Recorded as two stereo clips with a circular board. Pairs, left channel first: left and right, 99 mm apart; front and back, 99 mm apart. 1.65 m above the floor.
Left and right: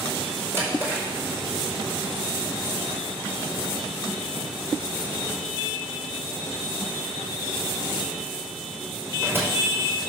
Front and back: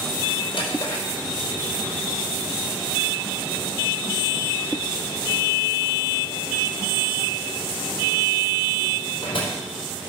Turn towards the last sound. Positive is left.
turn(degrees=-25)